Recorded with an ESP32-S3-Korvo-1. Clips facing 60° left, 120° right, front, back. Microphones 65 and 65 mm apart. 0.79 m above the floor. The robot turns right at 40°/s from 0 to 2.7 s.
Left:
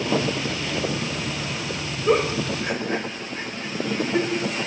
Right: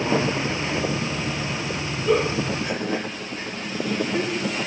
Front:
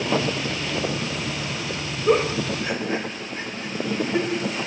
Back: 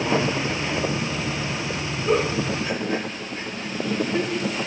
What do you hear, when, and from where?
2.1 s a giggle: 25° left, 0.6 m; by 4.7 s 50° left, 0.6 m